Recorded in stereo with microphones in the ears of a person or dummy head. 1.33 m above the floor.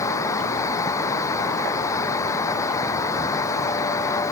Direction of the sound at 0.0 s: 15° left (ahead or behind).